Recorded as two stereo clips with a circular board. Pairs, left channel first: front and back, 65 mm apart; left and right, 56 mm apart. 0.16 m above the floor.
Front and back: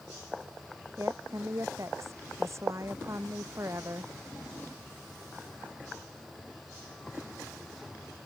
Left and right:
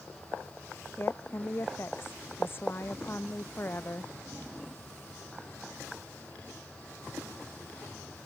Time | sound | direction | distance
1.0 | a woman speaking | 140° left | ?